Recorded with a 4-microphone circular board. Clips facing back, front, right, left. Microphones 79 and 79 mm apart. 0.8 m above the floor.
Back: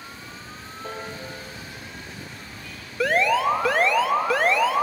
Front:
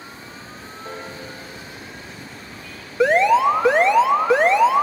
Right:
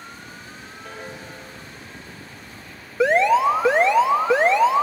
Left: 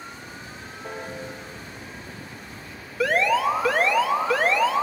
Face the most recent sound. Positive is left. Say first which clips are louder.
# front 6 dB, right 5 dB
turn(degrees=-45)